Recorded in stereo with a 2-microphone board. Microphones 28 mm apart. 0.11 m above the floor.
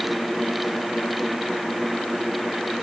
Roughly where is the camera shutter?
No camera shutter in this recording.